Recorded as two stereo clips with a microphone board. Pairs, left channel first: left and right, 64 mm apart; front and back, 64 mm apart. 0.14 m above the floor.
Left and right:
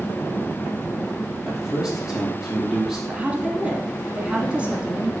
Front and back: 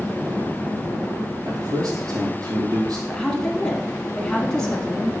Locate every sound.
1.4 s a man speaking: straight behind, 4 m
3.1 s a woman speaking: 60° right, 1.4 m